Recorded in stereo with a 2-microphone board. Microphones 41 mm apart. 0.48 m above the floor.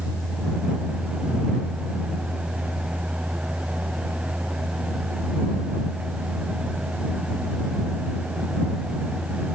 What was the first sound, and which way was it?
Only background noise.